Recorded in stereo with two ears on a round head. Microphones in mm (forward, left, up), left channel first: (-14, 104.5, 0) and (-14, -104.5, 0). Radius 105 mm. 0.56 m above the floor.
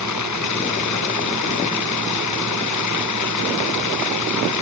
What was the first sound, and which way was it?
Running water, 80° left.